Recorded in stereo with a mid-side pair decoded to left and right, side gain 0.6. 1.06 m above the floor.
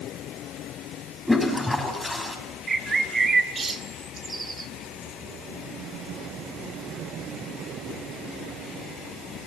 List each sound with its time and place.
1.3 s a toilet flushing: straight ahead, 5.5 m
2.7 s a bird: 30° right, 1.6 m